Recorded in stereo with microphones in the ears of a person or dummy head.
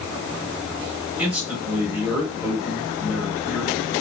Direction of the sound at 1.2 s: 10° right (ahead or behind).